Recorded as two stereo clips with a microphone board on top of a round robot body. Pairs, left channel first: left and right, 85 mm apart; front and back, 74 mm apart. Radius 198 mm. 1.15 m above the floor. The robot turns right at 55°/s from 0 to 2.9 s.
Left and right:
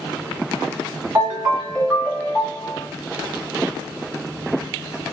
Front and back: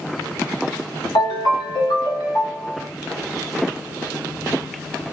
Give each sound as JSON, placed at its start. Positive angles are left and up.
{"t": 1.1, "sound": "a ringtone", "azimuth_deg": -35, "distance_m": 1.3}